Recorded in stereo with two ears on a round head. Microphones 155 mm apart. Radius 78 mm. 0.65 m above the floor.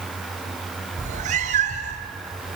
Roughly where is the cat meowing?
Right.